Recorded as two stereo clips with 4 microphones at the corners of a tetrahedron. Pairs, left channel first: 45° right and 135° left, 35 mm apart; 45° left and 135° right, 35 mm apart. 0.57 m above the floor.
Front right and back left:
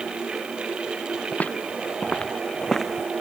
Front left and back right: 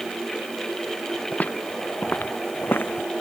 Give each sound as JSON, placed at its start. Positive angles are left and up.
{"t": 1.3, "sound": "footsteps", "azimuth_deg": -5}